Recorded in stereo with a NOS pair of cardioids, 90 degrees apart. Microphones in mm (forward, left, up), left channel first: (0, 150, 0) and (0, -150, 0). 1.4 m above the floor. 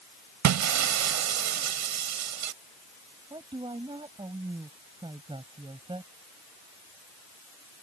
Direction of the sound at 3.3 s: 15° right.